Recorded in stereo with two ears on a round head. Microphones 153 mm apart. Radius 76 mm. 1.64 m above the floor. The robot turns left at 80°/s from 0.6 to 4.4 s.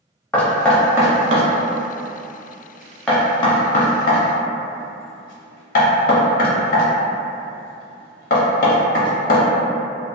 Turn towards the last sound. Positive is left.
turn(degrees=50)  # may be behind; listen again after turning